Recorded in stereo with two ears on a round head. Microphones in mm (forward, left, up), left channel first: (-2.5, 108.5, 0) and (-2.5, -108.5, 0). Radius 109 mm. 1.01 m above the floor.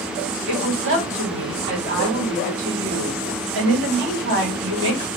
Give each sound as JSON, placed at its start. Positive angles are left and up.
{"t": 0.5, "sound": "a woman speaking", "side_deg": -50, "distance_m": 1.9}